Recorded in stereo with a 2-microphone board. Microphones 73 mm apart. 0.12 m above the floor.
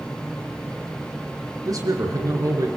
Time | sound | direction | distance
1.6 | a man speaking | 55° right (ahead or behind) | 2.5 m